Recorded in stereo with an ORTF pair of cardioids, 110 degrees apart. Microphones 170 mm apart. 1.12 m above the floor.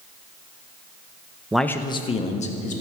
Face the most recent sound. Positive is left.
turn(degrees=50)